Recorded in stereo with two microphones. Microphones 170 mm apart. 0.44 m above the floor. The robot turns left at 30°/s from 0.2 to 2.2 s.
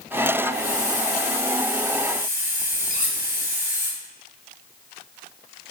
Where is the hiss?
115° right, 3 m; by 3.9 s 165° right, 3 m.